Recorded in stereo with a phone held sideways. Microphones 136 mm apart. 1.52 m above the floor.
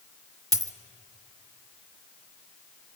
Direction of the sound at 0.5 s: 25° right (ahead or behind).